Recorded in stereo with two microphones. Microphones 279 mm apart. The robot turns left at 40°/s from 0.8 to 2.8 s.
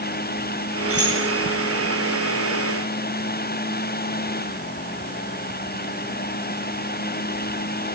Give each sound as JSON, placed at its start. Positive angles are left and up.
{"t": 0.9, "sound": "keys jangling", "side_deg": -50, "distance_m": 9.0}